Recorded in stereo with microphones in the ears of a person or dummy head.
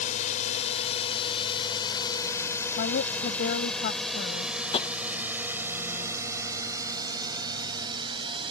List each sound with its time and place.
0.0 s a drone: 40° left (ahead or behind); by 8.5 s 25° right (ahead or behind)
2.8 s a woman speaking: 50° left (ahead or behind)
4.7 s tapping: 30° left (ahead or behind)